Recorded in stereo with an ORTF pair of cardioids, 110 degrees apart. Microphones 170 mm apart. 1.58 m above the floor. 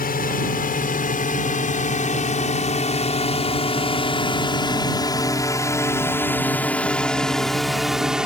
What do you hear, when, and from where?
0.0 s a drone: 60° left; by 8.3 s 5° right